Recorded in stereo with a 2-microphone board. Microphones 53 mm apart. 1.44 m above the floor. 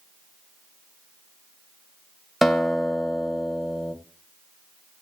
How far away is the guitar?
About 1.7 m.